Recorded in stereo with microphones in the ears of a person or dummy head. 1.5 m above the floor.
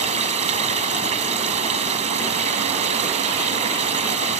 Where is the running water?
40° right (ahead or behind).